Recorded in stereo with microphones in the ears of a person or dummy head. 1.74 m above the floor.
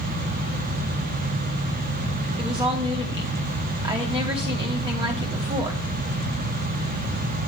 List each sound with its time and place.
2.4 s a woman speaking: 25° right (ahead or behind), 2.0 m